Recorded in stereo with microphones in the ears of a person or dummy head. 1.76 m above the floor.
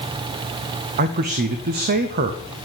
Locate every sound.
1.0 s a man speaking: 45° right (ahead or behind), 0.7 m